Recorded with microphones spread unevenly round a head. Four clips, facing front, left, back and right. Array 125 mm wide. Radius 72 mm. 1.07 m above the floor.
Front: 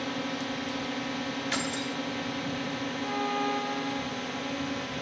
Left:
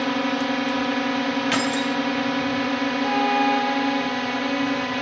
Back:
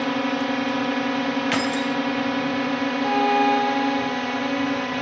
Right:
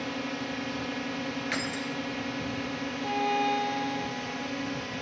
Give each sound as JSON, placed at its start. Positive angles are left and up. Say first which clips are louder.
{"t": 0.0, "sound": "a drone", "louder": "left 11 dB, back 10 dB", "azimuth_deg": 140}
{"t": 1.5, "sound": "keys jangling", "louder": "left 10 dB, back 10 dB", "azimuth_deg": 160}
{"t": 3.0, "sound": "a violin", "louder": "left 6 dB, back 11 dB", "azimuth_deg": 175}